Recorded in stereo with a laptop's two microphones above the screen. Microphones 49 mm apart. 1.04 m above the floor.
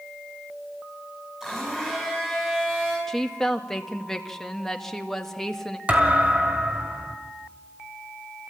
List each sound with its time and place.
1.4 s a blender: 15° right (ahead or behind), 7.5 m
3.1 s a woman speaking: 10° left (ahead or behind), 1.8 m
5.9 s a thud: 25° right (ahead or behind), 1.6 m